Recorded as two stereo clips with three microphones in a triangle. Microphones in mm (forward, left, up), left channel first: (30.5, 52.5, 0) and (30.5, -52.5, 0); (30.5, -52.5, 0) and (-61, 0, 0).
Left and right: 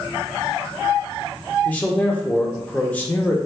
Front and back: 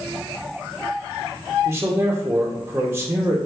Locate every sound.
1.6 s a man speaking: 140° left, 0.7 m